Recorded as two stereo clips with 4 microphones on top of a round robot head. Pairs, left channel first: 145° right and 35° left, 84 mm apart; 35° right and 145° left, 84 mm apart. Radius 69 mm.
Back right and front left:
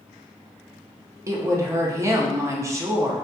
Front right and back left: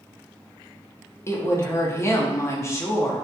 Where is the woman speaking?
Straight ahead, 0.7 m.